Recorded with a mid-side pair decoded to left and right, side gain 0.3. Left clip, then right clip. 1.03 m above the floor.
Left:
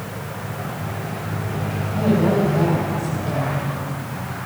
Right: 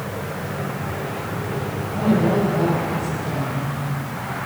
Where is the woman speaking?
20° left, 5 m.